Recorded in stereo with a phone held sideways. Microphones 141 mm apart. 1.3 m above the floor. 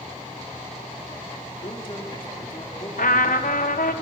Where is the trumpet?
80° left, 1.0 m.